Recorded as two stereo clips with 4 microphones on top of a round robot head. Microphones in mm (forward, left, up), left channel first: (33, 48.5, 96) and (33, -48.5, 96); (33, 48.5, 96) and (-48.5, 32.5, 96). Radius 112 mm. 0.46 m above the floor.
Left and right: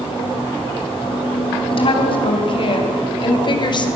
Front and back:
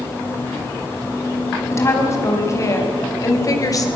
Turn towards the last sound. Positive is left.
turn(degrees=55)